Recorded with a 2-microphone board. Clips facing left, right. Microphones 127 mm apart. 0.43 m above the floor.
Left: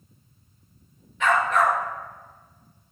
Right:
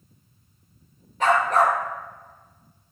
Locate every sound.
1.2 s a dog barking: 40° right (ahead or behind), 1.8 m